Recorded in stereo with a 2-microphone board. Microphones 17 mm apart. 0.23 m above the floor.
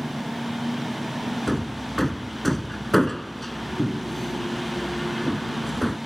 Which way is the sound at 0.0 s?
35° left (ahead or behind).